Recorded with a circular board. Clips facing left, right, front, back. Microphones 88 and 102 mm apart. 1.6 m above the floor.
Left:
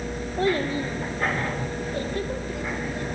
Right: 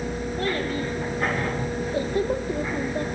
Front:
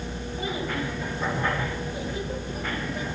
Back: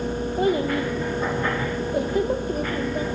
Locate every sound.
0.4 s a child speaking: 155° left, 1.3 m; by 3.0 s 130° right, 1.2 m